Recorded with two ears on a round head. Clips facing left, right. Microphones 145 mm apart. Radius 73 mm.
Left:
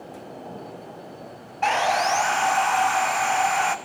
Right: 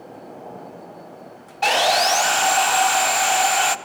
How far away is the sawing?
About 1.1 m.